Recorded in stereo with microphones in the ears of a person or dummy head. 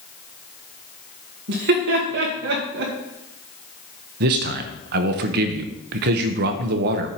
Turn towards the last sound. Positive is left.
turn(degrees=-60)  # may be behind; listen again after turning